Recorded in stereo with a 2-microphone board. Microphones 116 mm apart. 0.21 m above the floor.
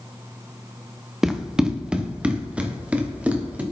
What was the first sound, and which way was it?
Running footsteps, 5° right (ahead or behind).